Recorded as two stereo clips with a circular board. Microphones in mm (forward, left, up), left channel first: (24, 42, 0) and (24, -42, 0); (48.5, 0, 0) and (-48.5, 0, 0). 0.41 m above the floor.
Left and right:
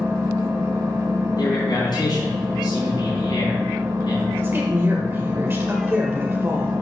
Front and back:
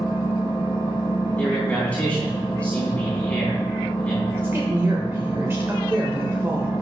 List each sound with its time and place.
0.0 s an engine running: 40° right, 4 m
1.4 s a man speaking: 75° left, 4 m
4.3 s a woman speaking: 135° right, 1.1 m